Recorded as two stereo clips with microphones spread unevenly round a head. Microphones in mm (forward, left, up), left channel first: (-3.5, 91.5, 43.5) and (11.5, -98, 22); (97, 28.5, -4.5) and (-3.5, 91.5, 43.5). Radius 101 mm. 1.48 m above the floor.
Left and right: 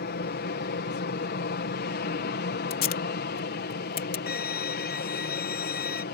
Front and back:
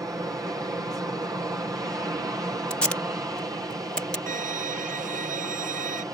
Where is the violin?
140° left.